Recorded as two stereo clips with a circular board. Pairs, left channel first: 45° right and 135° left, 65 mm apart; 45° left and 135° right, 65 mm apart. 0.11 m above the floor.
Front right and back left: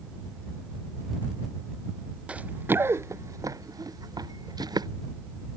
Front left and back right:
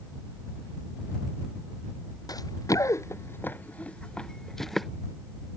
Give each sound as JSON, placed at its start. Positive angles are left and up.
{"t": 2.3, "sound": "running footsteps", "azimuth_deg": 65}